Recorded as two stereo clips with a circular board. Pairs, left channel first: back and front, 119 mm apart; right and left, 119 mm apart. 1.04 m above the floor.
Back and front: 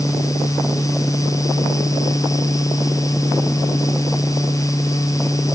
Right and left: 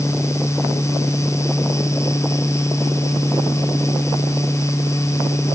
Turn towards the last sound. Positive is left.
No sound to turn to.